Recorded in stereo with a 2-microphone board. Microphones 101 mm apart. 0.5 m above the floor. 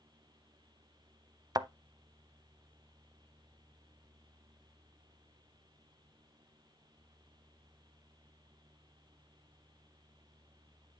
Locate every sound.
1.6 s a thud: 40° right (ahead or behind), 0.5 m